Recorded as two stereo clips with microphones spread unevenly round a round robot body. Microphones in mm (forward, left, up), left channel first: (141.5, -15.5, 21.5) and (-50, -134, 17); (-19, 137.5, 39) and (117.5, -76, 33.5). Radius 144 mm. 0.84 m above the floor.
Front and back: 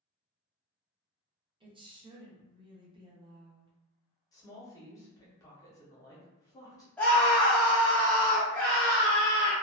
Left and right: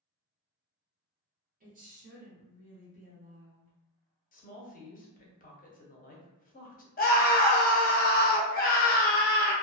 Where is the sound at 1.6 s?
90° right, 0.8 m.